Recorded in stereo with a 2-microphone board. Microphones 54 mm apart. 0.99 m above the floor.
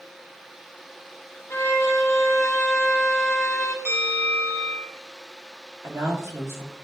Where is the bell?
65° right (ahead or behind), 3.5 m.